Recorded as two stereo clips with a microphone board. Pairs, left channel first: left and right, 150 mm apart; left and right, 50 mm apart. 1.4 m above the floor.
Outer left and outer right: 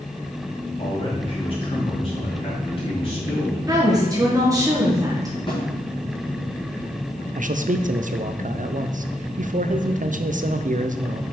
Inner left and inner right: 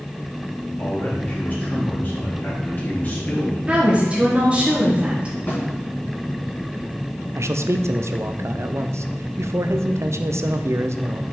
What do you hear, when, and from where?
0.8 s a man speaking: 40° left (ahead or behind), 2.5 m
3.7 s a woman speaking: 25° right (ahead or behind), 1.3 m
5.5 s a snare drum: 35° left (ahead or behind), 2.5 m
7.3 s a man speaking: 60° right (ahead or behind), 0.5 m